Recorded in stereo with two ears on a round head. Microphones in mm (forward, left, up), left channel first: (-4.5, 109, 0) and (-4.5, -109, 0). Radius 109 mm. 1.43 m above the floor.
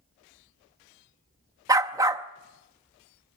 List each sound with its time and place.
1.7 s a dog barking: 15° right (ahead or behind), 0.8 m